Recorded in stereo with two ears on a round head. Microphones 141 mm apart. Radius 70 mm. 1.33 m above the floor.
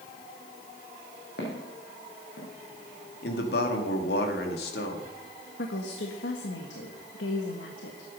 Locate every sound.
1.4 s footsteps: 70° left (ahead or behind), 4 m
3.2 s a man speaking: 70° left (ahead or behind), 2 m
5.6 s a woman speaking: 85° left, 1.5 m